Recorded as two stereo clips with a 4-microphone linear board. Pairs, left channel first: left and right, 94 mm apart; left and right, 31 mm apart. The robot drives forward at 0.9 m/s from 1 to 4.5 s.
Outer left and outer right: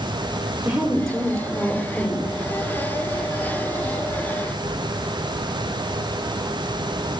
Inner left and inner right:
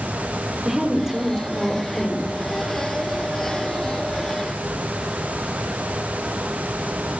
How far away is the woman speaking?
About 1.7 m.